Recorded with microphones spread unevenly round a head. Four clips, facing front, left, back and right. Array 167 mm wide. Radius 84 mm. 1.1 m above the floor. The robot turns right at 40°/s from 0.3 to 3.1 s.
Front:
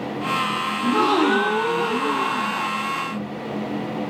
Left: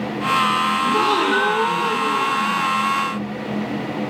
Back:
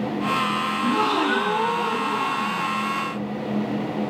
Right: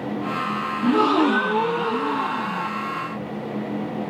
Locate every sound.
0.8 s a gasp: 90° right, 1.8 m; by 2.7 s 15° right, 1.8 m